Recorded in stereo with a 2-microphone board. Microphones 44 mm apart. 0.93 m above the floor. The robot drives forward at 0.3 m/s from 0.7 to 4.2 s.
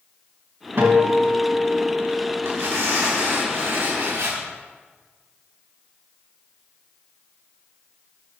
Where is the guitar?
80° right, 2.5 m; by 2.5 s 75° right (ahead or behind), 2.5 m.